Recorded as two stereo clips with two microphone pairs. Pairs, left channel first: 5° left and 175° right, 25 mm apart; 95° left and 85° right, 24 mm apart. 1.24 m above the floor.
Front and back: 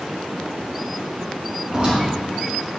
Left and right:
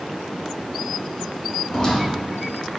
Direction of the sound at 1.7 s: 140° left.